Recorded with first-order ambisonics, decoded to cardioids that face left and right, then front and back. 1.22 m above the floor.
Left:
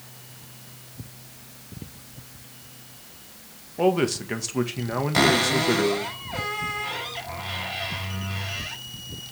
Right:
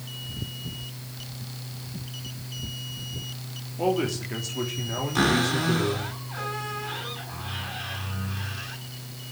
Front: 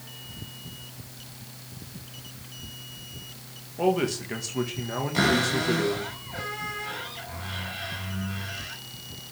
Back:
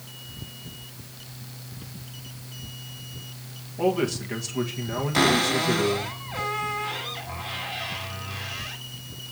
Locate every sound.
3.8 s a man speaking: 85° left, 1.6 m
5.1 s a cupboard door: 110° left, 4 m